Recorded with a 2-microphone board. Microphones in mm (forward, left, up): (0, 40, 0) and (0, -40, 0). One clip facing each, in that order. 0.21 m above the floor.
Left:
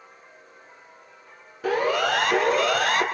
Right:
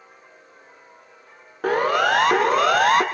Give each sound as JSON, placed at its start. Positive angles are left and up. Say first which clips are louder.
{"t": 1.6, "sound": "a siren", "louder": "right 3 dB", "side_deg": -50, "distance_m": 3.5}